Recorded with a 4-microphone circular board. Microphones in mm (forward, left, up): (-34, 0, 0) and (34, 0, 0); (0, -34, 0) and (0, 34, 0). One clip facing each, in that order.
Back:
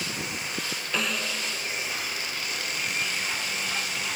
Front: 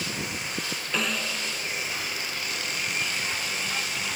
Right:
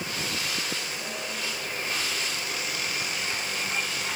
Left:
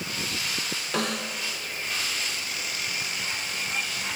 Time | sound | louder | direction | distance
0.9 | a snare drum | even, left 5 dB | 90° left | 2 m